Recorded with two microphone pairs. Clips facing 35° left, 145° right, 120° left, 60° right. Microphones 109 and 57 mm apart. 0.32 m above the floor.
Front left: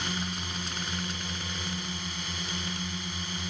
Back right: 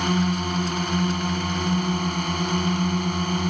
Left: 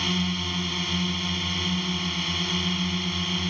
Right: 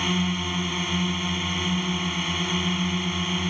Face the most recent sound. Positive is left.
turn(degrees=-135)